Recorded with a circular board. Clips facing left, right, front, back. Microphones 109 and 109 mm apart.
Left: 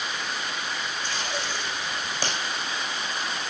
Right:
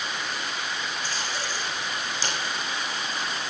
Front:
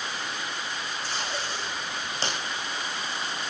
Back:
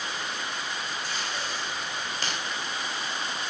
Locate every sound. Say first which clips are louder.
1.0 s tape being pulled: left 1 dB, front 1 dB; 60° left, 5 m